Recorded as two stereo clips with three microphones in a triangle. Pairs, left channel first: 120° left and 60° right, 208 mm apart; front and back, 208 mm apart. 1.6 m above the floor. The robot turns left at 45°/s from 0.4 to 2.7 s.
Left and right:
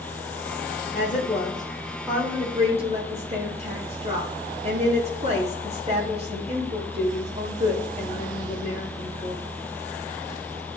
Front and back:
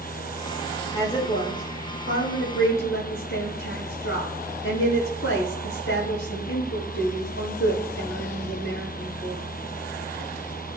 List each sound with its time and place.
0.9 s a woman speaking: 80° left, 6.5 m; by 9.4 s straight ahead, 6.5 m